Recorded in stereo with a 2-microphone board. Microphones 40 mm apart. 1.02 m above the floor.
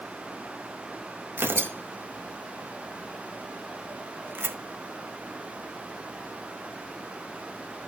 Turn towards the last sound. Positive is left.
turn(degrees=-65)  # may be behind; listen again after turning